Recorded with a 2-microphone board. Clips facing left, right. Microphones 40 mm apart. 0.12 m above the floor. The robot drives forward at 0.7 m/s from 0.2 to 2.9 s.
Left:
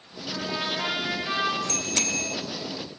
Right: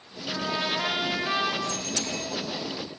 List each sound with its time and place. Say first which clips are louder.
0.3 s a trumpet: right 1 dB; 5° right (ahead or behind), 8.5 m; by 1.6 s 10° right (ahead or behind), 8 m
1.7 s a bicycle bell: left 2 dB; 60° left (ahead or behind), 2.5 m; by 2.4 s 65° left (ahead or behind), 2.5 m